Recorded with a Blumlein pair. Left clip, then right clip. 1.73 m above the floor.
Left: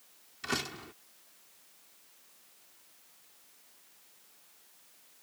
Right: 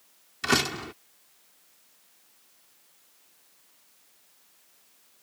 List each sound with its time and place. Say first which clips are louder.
0.4 s a door slam: right 10 dB; 60° right